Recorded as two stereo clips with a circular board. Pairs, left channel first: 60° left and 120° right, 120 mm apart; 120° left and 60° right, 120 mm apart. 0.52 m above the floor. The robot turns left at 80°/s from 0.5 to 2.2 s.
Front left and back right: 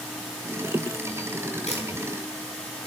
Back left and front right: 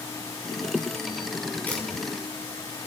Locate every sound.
1.7 s a camera shutter: 45° left, 5 m; by 1.8 s 35° left, 5 m